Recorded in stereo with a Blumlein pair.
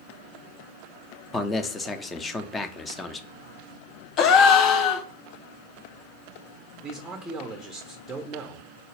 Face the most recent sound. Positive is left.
turn(degrees=-10)